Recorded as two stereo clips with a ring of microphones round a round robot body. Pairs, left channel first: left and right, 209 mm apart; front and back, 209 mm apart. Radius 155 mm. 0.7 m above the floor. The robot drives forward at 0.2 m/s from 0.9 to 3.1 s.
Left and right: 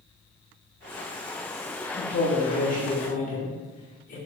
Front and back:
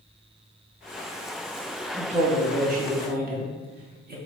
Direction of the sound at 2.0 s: 125° left.